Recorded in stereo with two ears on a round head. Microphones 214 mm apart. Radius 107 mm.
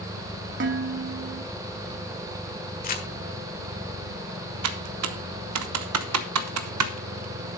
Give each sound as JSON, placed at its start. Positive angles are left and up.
{"t": 0.6, "sound": "dishes clattering", "side_deg": -50, "distance_m": 1.2}
{"t": 2.8, "sound": "crumpling", "side_deg": 40, "distance_m": 1.6}
{"t": 4.6, "sound": "typing on a keyboard", "side_deg": -75, "distance_m": 1.1}